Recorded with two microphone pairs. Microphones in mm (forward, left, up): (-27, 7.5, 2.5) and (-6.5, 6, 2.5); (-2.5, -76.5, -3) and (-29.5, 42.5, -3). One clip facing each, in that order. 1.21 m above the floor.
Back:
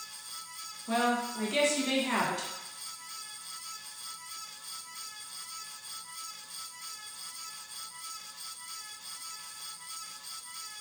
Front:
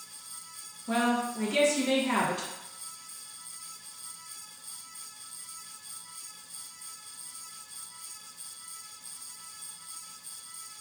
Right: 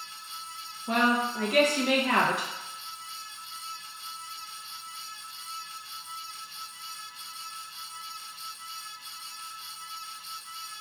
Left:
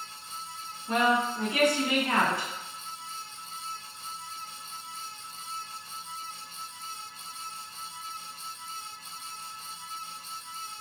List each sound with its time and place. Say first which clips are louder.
0.9 s a woman speaking: front 1 dB, even; 100° right, 0.9 m